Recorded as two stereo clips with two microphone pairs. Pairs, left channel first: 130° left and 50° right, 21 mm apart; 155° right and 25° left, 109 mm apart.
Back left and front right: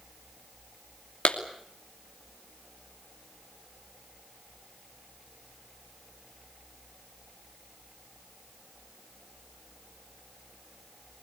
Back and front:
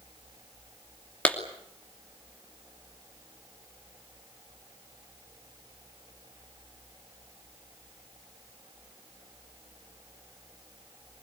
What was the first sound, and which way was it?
A clap, 125° left.